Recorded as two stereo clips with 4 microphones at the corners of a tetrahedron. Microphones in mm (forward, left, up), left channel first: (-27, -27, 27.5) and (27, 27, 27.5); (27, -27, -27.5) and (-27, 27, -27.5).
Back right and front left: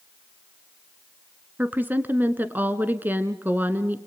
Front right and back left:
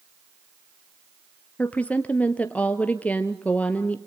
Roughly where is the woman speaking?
Ahead.